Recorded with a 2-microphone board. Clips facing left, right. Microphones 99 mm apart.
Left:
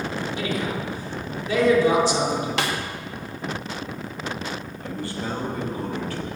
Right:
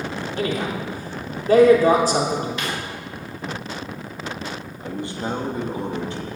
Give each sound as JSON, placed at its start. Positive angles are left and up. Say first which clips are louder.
{"t": 0.4, "sound": "a man speaking", "louder": "right 5 dB", "side_deg": -45, "distance_m": 3.5}
{"t": 2.6, "sound": "a snare drum", "louder": "left 3 dB", "side_deg": 85, "distance_m": 1.7}
{"t": 4.8, "sound": "a man speaking", "louder": "right 3 dB", "side_deg": -20, "distance_m": 2.5}